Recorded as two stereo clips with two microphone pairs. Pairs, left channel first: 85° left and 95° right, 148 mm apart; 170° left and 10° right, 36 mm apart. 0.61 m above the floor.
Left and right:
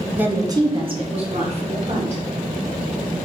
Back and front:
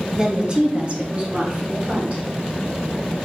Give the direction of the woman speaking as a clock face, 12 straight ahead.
1 o'clock.